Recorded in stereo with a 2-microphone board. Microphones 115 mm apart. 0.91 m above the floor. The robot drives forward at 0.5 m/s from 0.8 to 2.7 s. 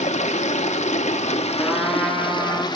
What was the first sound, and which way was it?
Running water, 80° left.